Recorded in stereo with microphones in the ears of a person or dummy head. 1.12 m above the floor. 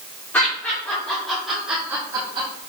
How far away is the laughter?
About 3.5 m.